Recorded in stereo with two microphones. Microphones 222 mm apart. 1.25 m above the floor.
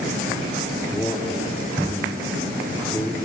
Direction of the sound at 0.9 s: 5° left (ahead or behind).